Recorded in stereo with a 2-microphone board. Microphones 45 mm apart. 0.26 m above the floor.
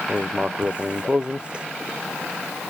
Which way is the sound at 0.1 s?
20° right (ahead or behind).